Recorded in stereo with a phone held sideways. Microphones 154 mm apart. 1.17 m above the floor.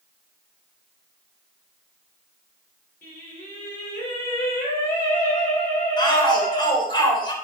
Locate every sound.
3.0 s singing: 70° left (ahead or behind), 5.5 m
6.0 s a shout: 30° left (ahead or behind), 4 m